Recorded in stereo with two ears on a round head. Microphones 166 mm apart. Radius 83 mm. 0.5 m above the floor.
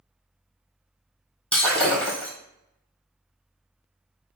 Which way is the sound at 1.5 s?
5° left (ahead or behind).